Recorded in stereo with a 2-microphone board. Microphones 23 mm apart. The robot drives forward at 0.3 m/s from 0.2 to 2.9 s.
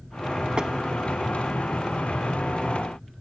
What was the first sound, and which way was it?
Tapping, 40° right (ahead or behind).